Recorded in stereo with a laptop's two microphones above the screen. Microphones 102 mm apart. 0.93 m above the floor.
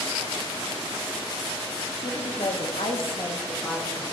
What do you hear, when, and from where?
2.0 s a woman speaking: 65° left (ahead or behind), 1.8 m; by 4.0 s 5° left (ahead or behind), 1.4 m